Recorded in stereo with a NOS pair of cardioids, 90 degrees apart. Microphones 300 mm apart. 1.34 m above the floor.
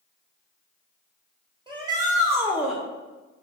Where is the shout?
15° right, 1.7 m; by 2.8 s straight ahead, 1.2 m.